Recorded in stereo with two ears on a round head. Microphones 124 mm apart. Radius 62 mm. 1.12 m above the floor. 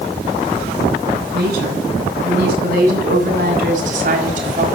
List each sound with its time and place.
1.3 s a woman speaking: 75° right (ahead or behind), 9.5 m; by 4.7 s 55° right (ahead or behind), 5 m